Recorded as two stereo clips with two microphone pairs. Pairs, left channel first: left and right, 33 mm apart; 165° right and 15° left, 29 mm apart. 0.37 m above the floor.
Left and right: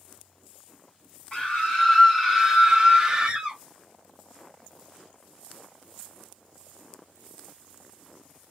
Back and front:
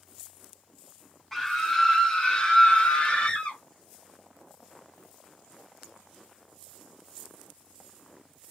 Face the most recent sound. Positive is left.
turn(degrees=-150)